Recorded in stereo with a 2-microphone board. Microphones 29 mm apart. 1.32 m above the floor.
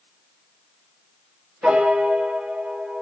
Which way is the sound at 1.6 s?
45° right (ahead or behind).